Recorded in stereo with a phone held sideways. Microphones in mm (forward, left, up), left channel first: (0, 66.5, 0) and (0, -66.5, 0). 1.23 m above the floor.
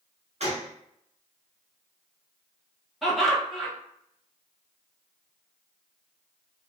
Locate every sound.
0.4 s a gunshot: 55° right (ahead or behind), 0.8 m
3.0 s laughter: centre (ahead or behind), 1.0 m